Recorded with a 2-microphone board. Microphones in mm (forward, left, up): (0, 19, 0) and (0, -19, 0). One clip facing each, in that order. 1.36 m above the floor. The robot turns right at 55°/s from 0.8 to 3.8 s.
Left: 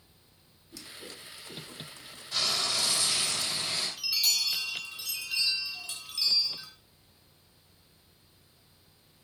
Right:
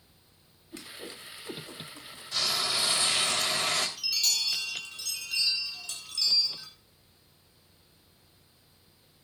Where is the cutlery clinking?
No cutlery clinking in this recording.